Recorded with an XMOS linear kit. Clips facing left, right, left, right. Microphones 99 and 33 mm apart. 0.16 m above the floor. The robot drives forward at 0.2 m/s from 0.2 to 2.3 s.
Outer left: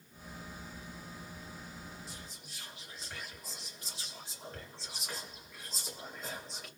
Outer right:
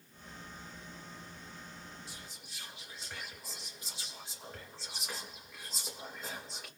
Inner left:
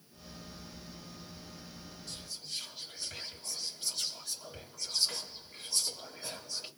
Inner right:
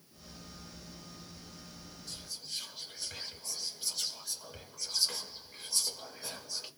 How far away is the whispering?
About 1.8 m.